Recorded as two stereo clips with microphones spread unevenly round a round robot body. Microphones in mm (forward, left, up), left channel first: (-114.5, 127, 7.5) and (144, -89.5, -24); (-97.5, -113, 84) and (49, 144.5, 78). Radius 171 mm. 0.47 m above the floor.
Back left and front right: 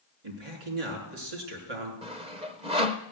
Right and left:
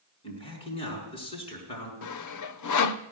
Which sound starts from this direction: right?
Sawing, at 2.0 s.